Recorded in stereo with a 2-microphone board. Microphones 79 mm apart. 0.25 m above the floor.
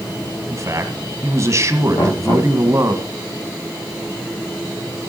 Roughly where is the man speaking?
Right.